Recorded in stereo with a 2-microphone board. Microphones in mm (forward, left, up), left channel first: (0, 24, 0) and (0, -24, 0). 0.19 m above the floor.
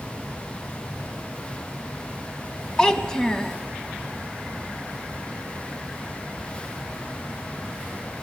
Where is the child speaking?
15° left (ahead or behind), 0.7 m.